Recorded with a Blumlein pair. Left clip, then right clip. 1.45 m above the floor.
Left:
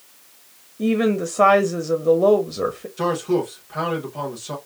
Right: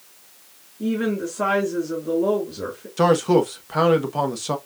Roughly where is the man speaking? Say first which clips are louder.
Right 5 dB; ahead right.